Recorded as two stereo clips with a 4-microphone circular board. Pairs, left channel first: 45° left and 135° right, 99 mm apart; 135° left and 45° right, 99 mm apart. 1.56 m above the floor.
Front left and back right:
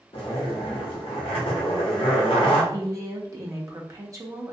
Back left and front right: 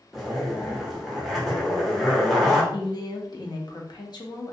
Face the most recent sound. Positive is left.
turn(degrees=170)